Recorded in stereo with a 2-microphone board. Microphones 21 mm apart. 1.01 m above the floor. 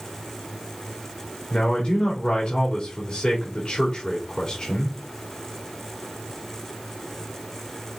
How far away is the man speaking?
About 3 m.